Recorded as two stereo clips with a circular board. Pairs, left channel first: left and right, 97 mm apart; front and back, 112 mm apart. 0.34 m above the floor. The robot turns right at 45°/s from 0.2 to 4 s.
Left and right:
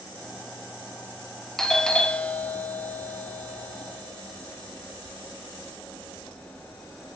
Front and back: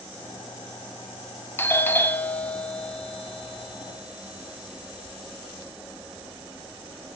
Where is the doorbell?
15° left, 1.3 m; by 7.2 s 125° left, 1.3 m.